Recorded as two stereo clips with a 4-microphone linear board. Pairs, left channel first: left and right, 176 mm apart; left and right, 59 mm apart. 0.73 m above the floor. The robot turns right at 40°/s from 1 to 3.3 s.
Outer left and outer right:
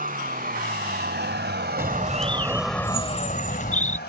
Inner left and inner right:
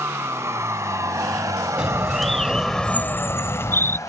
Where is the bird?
15° right; by 4.0 s 45° left.